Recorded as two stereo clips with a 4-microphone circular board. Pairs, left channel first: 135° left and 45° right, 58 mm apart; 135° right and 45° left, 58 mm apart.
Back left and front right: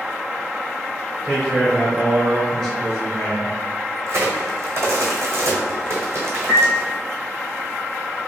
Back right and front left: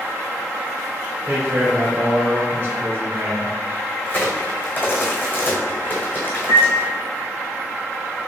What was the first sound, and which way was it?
A man speaking, 55° left.